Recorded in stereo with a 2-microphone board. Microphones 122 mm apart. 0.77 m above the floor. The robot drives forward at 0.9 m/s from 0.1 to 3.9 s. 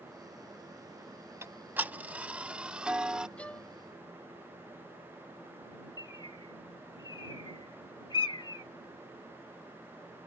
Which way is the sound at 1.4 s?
20° right (ahead or behind).